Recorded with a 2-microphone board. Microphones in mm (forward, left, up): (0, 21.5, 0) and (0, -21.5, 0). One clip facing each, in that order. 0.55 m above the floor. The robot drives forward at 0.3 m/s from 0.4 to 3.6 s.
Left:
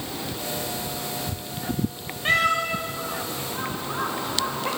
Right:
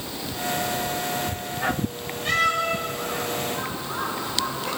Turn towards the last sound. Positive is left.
turn(degrees=40)  # may be behind; listen again after turning